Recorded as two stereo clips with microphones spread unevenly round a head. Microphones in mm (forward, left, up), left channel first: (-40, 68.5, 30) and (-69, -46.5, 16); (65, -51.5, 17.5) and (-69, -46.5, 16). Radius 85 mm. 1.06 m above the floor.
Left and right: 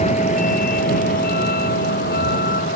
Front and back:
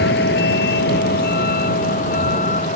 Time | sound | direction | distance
0.0 | a vehicle | 20° left | ?